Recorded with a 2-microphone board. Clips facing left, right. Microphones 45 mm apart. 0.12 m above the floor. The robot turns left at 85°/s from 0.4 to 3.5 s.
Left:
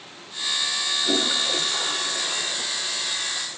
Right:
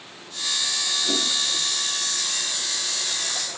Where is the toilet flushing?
10° left (ahead or behind); by 3.6 s 40° right (ahead or behind).